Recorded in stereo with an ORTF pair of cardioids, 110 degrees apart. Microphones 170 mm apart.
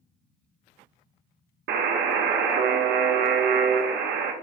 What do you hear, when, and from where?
1.7 s a buzzer: 65° right, 0.6 m